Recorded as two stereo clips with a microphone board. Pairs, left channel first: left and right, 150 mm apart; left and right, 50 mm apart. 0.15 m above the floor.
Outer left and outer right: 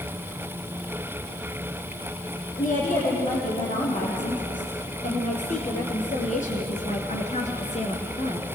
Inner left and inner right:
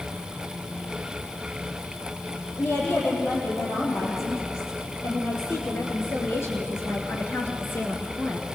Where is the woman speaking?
60° left (ahead or behind), 6 m; by 8.5 s 45° left (ahead or behind), 2.5 m.